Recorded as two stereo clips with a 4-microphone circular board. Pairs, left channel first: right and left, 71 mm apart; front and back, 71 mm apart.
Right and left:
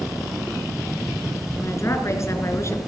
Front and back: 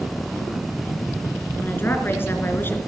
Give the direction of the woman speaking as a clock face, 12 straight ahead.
2 o'clock.